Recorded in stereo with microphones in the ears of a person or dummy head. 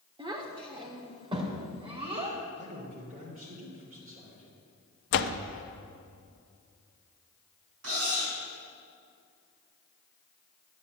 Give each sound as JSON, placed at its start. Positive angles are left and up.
{"t": 0.2, "sound": "a child speaking", "side_deg": -25, "distance_m": 1.6}
{"t": 2.6, "sound": "a man speaking", "side_deg": -40, "distance_m": 3.5}
{"t": 5.1, "sound": "a door slam", "side_deg": 55, "distance_m": 0.6}
{"t": 7.8, "sound": "cutlery clinking", "side_deg": -85, "distance_m": 5.0}